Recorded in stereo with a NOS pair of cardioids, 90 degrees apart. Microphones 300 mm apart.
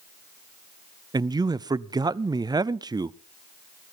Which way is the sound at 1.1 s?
15° right.